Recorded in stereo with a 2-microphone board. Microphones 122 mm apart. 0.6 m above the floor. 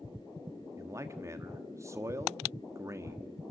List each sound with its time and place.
0.8 s a man speaking: 25° right (ahead or behind), 1.2 m